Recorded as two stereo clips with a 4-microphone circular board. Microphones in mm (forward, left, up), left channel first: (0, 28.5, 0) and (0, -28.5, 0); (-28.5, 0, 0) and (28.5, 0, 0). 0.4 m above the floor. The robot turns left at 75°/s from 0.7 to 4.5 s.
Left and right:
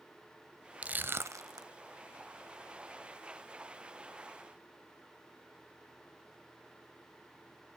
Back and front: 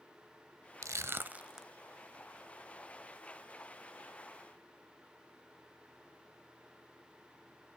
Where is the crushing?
25° right, 0.6 m; by 1.7 s 90° right, 0.6 m.